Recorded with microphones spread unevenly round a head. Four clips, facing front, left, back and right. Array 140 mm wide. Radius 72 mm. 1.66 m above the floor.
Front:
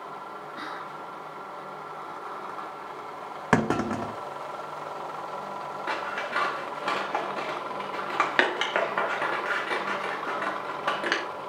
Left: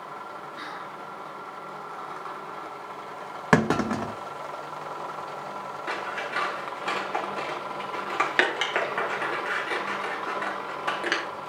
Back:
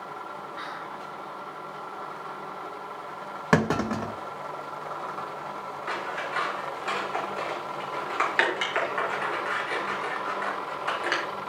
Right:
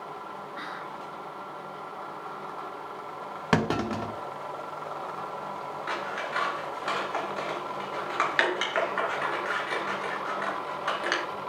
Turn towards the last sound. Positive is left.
turn(degrees=20)